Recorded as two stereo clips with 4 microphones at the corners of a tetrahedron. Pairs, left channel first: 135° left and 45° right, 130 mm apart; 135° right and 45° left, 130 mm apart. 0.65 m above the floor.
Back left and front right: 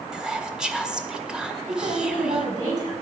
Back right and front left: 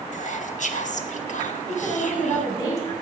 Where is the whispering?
130° right, 1.3 m.